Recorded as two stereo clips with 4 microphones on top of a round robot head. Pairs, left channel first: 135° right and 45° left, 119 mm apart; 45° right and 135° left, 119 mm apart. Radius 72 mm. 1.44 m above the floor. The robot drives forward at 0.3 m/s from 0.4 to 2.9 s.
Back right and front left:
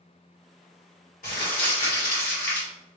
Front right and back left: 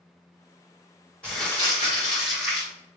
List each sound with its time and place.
1.2 s crumpling: 125° right, 2 m; by 2.7 s 135° right, 2.5 m